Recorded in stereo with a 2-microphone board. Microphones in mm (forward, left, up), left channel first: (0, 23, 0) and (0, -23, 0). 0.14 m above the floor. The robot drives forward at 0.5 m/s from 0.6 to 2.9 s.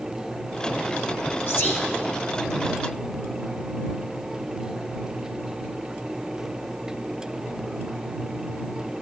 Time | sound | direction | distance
1.5 | whispering | 45° left (ahead or behind) | 2 m